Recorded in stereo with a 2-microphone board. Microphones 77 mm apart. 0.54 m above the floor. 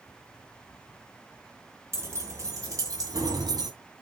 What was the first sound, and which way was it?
Keys jangling, 40° right (ahead or behind).